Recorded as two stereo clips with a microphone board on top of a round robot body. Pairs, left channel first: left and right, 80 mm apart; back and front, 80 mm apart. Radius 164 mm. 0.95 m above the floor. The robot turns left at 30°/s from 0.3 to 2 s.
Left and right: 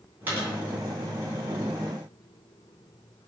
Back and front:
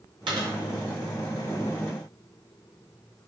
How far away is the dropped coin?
About 3 m.